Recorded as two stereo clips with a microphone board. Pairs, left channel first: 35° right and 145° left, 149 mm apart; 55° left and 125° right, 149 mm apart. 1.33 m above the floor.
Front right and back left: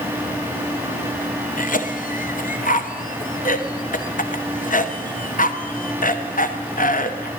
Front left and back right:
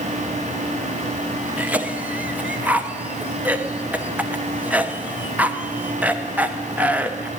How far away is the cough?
About 0.9 m.